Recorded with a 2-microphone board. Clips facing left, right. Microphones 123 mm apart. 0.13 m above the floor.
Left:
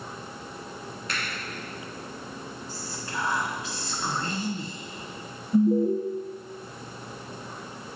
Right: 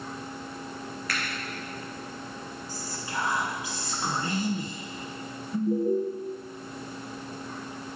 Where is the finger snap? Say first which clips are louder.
Even; 25° left (ahead or behind), 2.5 m.